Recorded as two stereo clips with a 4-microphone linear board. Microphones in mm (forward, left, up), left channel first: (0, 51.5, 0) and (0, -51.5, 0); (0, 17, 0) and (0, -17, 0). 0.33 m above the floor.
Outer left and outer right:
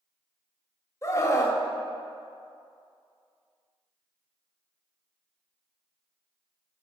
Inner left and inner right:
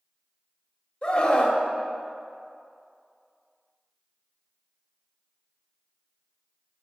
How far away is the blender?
No blender in this recording.